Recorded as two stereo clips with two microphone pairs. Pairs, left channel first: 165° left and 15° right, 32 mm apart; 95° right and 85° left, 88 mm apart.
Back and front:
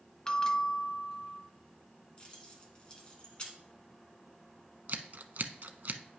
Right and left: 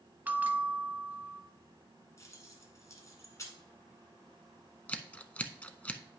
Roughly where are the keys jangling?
Behind right.